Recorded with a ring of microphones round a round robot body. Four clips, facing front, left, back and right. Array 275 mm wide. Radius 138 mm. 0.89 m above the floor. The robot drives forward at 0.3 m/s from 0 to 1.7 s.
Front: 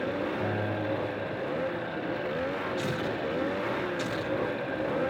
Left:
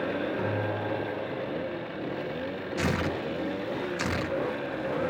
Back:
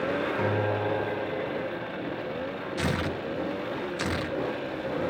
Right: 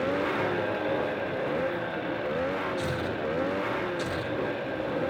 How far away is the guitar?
About 3 m.